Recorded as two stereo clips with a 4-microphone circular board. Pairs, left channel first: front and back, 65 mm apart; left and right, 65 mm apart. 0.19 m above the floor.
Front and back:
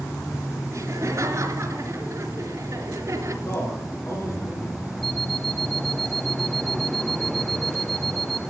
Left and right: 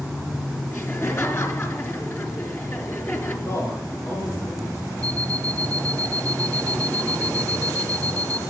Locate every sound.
0.7 s laughter: 140° left, 3.5 m
3.5 s a man speaking: 45° left, 6 m
5.0 s an alarm clock: 85° right, 1.3 m